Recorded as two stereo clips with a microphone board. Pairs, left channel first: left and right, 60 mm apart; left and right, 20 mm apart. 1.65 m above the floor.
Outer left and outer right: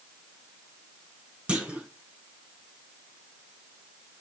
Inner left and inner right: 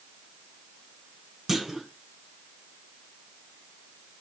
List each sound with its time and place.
1.5 s a clunk: 20° right (ahead or behind), 1.0 m